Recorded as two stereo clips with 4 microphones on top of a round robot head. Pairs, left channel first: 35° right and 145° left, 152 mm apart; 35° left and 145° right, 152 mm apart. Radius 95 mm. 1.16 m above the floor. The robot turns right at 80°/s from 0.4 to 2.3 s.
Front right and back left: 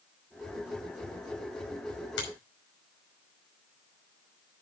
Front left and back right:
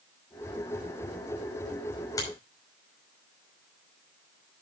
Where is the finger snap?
35° right, 5 m; by 2.3 s 25° right, 5 m.